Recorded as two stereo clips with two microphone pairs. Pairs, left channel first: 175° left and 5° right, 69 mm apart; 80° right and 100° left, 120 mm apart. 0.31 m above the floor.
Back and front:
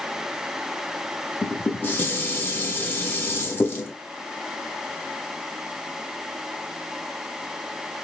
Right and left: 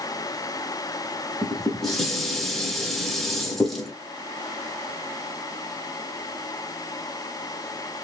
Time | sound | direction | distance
1.4 | dishes clattering | 160° right | 0.8 m